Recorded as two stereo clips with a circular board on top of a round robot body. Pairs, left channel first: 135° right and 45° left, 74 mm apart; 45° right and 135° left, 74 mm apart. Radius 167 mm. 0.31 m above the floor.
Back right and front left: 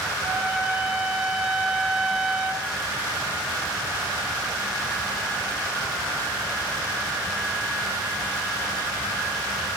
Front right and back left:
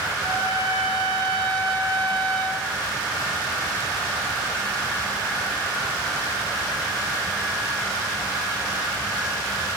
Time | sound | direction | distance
0.2 | a trumpet | 135° left | 7 m